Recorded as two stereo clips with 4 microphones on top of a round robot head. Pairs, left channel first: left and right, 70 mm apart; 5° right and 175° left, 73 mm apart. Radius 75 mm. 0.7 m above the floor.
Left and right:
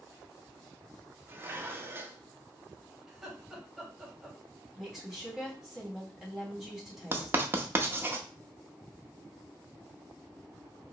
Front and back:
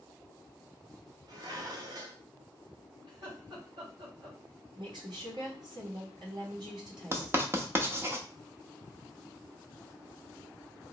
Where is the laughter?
175° right, 2.5 m.